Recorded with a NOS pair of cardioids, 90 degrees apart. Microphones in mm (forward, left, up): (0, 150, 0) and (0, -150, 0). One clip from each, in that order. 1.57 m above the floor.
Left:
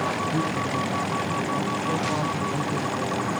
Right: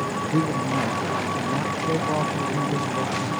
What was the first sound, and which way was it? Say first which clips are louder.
A man speaking: right 2 dB; 25° right.